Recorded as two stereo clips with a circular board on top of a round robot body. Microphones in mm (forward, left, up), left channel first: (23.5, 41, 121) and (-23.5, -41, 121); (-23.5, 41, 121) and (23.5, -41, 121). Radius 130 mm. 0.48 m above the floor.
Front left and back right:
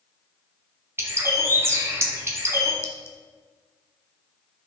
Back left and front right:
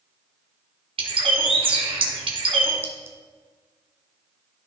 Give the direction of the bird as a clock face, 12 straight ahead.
2 o'clock.